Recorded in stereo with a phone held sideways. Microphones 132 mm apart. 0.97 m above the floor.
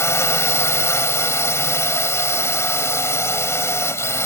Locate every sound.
0.0 s a drone: 20° left (ahead or behind)